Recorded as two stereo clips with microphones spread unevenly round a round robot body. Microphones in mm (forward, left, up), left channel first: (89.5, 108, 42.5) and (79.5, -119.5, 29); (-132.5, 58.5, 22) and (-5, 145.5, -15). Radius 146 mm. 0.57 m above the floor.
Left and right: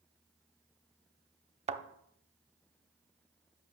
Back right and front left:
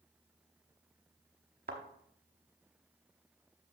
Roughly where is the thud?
Ahead right.